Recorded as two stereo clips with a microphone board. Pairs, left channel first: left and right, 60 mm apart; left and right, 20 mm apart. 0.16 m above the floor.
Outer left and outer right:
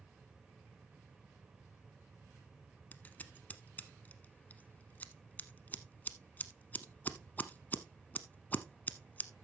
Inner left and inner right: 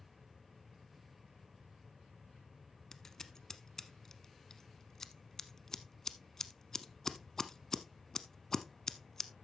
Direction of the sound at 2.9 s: 30° left (ahead or behind).